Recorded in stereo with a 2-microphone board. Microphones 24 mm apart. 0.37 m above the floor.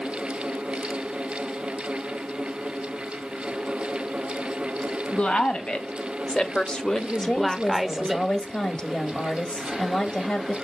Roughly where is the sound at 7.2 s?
Left.